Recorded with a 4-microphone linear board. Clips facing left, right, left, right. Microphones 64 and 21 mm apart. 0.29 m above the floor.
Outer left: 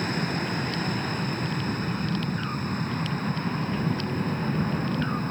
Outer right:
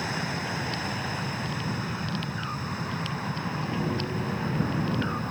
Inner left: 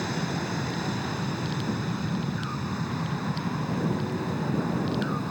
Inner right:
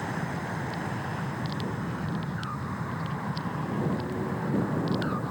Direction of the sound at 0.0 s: 50° left (ahead or behind).